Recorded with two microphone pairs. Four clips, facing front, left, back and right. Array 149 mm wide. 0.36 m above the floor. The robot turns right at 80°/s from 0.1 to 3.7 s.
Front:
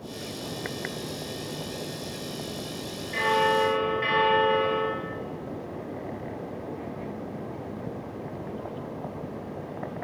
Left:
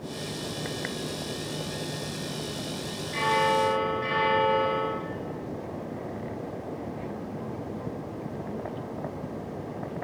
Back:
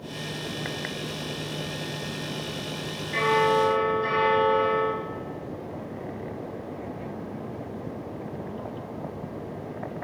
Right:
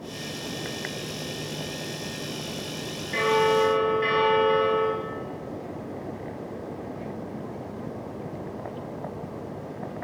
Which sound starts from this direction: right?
A bell, at 3.1 s.